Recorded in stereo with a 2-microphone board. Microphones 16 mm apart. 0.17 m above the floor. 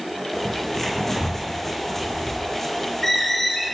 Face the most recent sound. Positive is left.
turn(degrees=20)  # may be behind; listen again after turning